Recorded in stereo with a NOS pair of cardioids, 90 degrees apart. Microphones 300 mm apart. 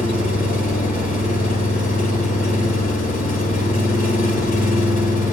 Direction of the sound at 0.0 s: 30° left.